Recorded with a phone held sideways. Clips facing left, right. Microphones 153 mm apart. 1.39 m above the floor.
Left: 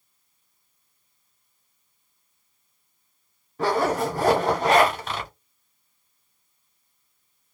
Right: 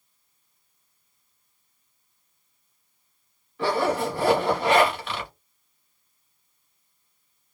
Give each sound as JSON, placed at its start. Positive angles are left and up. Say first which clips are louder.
{"t": 3.6, "sound": "a zipper", "louder": "left 1 dB", "side_deg": 40, "distance_m": 1.3}